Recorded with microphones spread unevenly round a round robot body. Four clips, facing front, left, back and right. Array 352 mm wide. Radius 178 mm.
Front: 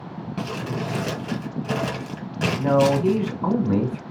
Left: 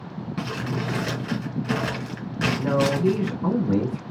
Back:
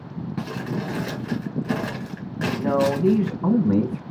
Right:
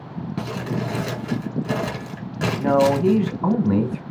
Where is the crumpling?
35° right, 2.5 m.